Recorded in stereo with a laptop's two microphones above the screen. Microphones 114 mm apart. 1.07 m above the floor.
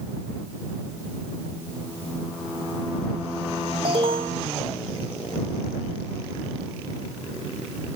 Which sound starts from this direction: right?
An alarm, at 3.9 s.